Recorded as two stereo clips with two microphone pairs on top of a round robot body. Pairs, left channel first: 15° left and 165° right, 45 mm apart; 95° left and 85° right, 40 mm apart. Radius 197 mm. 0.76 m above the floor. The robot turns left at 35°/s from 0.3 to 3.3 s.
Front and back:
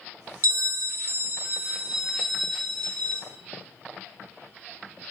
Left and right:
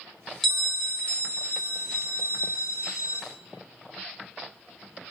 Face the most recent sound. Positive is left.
turn(degrees=80)